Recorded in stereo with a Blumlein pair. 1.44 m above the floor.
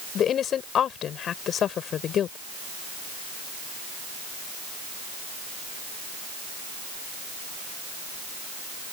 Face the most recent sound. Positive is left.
turn(degrees=25)